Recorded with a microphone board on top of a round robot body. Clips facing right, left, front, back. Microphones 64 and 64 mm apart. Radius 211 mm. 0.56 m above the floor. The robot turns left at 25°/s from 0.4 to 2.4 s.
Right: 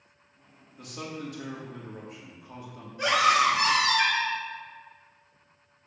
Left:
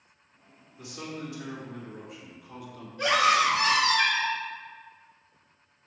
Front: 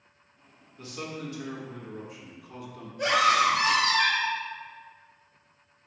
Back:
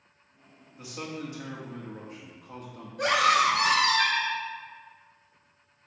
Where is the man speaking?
105° right, 2 m; by 2.9 s 145° right, 2 m.